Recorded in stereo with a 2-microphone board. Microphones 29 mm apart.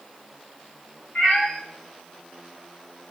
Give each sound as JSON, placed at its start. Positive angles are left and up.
{"t": 1.1, "sound": "a cat meowing", "side_deg": 70, "distance_m": 2.5}